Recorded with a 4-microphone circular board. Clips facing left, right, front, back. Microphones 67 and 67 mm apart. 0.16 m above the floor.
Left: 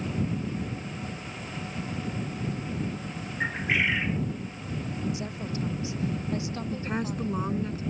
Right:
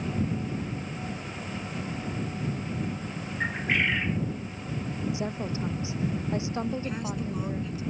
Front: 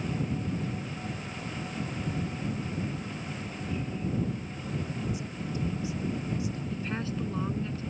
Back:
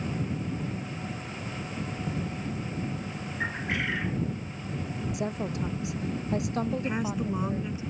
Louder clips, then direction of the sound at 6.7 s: Left 1 dB, back 4 dB; 115° left.